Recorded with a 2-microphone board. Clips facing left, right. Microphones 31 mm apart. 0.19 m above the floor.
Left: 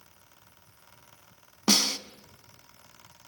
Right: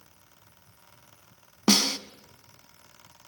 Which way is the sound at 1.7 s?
10° right (ahead or behind).